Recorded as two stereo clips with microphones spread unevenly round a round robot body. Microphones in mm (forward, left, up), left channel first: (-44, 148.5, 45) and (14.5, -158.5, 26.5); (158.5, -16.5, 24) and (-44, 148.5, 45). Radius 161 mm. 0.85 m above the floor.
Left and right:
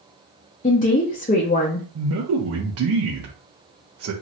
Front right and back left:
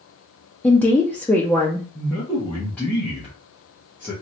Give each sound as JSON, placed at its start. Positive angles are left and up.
{"t": 0.6, "sound": "a woman speaking", "azimuth_deg": 40, "distance_m": 0.6}
{"t": 1.9, "sound": "a man speaking", "azimuth_deg": -120, "distance_m": 0.6}